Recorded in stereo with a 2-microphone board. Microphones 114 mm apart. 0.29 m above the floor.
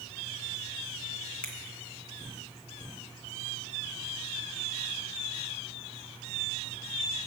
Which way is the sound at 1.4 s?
10° left (ahead or behind).